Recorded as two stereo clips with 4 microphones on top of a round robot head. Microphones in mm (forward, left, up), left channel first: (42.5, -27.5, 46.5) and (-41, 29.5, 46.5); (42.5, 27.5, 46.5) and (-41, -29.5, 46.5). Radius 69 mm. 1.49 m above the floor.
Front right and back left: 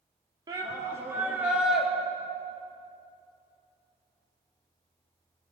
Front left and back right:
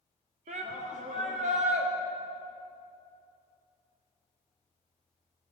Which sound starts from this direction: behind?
A shout, at 0.5 s.